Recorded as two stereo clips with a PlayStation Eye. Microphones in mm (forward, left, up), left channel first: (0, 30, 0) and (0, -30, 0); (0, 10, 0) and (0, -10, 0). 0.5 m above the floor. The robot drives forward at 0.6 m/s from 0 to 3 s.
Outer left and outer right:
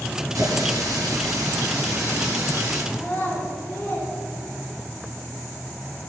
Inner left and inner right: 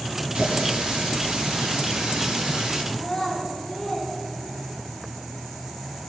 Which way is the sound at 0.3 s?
70° right (ahead or behind).